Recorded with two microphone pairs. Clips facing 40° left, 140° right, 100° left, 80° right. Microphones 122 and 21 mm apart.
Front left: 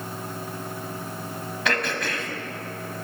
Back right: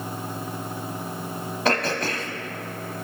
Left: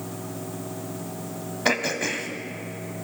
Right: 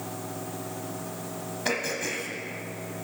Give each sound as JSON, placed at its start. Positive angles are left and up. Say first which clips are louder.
{"t": 1.6, "sound": "throat clearing", "louder": "back right 3 dB, left 5 dB", "azimuth_deg": 165, "distance_m": 1.0}